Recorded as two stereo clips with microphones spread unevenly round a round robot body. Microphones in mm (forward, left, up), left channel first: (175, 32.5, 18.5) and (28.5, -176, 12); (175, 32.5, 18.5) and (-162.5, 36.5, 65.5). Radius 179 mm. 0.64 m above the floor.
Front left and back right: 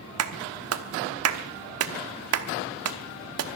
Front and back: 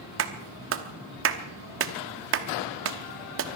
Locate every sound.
0.2 s a clap: 125° right, 1.0 m